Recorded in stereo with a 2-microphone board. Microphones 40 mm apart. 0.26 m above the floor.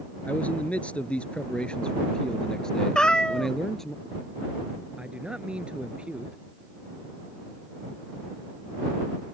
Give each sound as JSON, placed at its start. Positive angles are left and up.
{"t": 0.3, "sound": "a man speaking", "side_deg": 35}
{"t": 3.0, "sound": "a cat meowing", "side_deg": 20}
{"t": 5.0, "sound": "a man speaking", "side_deg": -25}